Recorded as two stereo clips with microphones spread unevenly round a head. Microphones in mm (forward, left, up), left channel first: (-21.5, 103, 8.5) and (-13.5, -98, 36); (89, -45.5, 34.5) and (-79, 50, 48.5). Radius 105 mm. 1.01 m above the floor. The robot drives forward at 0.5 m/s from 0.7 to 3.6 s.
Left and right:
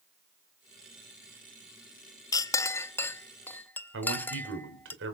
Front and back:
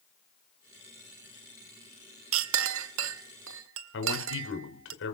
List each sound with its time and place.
2.3 s a clink: 165° left, 0.6 m; by 4.9 s 175° left, 1.2 m
3.9 s a man speaking: 50° right, 5 m